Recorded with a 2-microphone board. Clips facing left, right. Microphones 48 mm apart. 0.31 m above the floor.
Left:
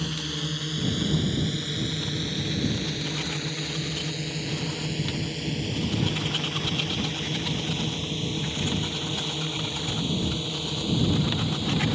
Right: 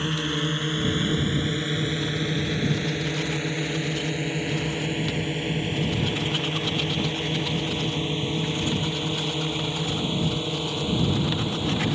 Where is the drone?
35° right (ahead or behind); by 11.9 s 25° right (ahead or behind).